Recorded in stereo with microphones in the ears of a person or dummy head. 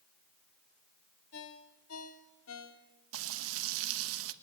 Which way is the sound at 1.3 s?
80° left.